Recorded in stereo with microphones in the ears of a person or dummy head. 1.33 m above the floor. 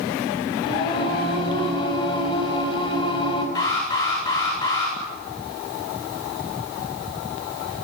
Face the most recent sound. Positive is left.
turn(degrees=30)  # may be behind; listen again after turning